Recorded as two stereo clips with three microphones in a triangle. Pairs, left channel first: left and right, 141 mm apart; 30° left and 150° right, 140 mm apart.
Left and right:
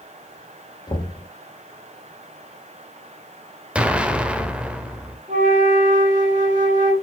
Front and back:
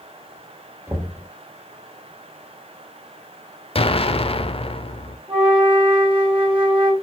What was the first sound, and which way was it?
Knocking, 140° left.